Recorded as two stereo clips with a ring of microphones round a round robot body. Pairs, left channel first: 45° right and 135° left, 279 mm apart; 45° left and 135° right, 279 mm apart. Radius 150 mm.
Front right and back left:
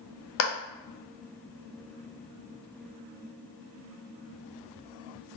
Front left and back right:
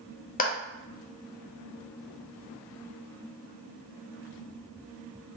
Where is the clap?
15° right, 0.6 m.